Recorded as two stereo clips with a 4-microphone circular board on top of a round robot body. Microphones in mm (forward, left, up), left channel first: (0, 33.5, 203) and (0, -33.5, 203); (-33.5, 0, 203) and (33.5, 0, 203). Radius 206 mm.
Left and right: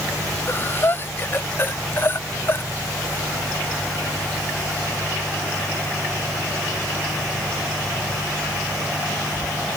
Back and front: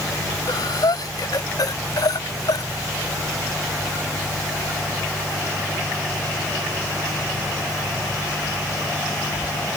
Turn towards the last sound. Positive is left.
turn(degrees=150)